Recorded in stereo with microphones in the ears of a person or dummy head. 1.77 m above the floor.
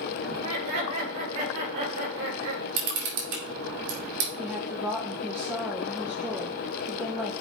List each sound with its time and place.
0.3 s laughter: 90° right, 4 m; by 2.6 s 70° right (ahead or behind), 4 m
2.8 s a camera shutter: 55° right (ahead or behind), 2 m
4.4 s a woman speaking: 5° right (ahead or behind), 0.9 m